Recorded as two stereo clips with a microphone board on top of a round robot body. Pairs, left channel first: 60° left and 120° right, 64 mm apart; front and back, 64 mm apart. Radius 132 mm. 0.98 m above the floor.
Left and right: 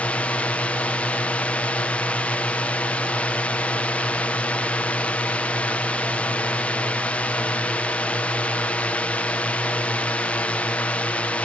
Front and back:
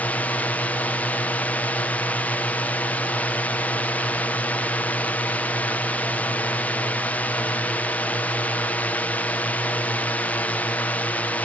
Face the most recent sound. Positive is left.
turn(degrees=25)